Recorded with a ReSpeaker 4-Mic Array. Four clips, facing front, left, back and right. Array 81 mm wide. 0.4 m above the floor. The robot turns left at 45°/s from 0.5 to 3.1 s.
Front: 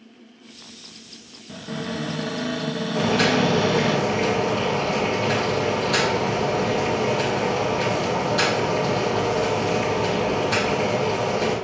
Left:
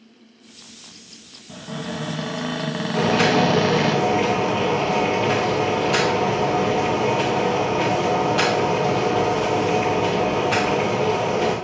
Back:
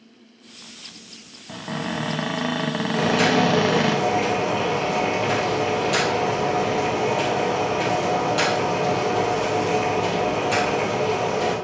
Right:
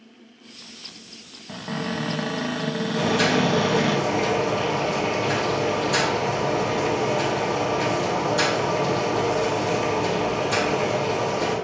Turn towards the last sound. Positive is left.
turn(degrees=105)